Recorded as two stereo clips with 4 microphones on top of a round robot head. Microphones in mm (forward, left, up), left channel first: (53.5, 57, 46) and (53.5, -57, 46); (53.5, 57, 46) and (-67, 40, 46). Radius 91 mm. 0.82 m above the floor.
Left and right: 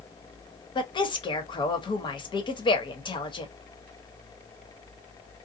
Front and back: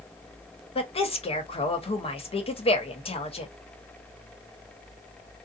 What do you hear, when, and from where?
0.8 s a woman speaking: 45° left, 1.2 m